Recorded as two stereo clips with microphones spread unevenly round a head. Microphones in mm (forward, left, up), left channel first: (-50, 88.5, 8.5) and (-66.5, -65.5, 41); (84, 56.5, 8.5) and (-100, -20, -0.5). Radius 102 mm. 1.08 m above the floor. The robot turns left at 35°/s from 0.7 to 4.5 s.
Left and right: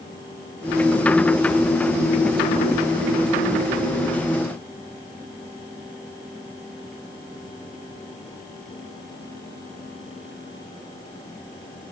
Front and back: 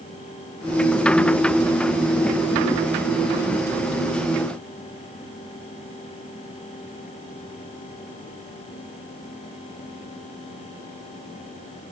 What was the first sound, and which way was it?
Only background noise.